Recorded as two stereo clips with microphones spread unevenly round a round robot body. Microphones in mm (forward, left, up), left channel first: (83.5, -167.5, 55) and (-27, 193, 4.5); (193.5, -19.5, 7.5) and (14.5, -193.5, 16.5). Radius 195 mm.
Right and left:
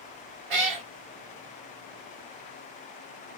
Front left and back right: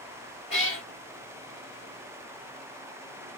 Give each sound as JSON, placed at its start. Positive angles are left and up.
{"t": 0.5, "sound": "a cat meowing", "azimuth_deg": 110, "distance_m": 1.1}